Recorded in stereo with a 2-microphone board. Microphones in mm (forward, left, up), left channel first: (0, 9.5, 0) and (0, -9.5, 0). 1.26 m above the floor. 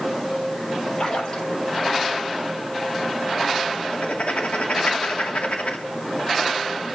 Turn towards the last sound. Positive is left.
turn(degrees=80)